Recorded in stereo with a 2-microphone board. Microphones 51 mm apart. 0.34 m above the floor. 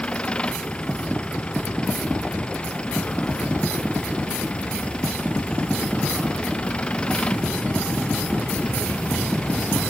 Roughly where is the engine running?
Left.